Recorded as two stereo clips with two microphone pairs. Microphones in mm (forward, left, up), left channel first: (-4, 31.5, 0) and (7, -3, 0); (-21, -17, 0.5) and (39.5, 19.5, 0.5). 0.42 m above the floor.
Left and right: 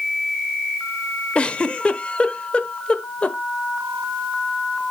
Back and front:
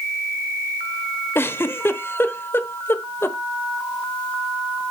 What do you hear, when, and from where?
1.4 s a giggle: 160° left, 1.0 m